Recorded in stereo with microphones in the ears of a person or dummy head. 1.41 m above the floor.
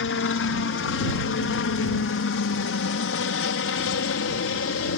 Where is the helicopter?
60° left (ahead or behind); by 5.0 s 65° left (ahead or behind).